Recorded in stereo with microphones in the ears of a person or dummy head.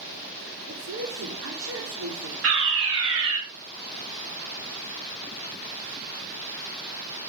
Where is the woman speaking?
75° right (ahead or behind), 4 m.